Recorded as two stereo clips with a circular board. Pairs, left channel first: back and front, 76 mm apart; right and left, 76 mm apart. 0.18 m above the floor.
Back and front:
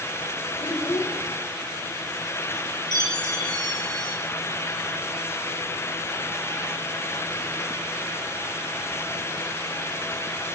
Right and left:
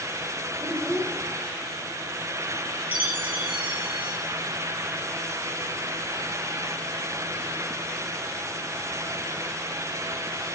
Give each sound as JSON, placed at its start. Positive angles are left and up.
{"t": 0.6, "sound": "a child speaking", "azimuth_deg": 175, "distance_m": 4.0}
{"t": 2.9, "sound": "a chime", "azimuth_deg": 160, "distance_m": 5.5}